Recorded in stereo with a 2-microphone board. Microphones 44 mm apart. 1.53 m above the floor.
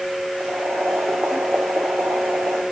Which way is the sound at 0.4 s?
80° right.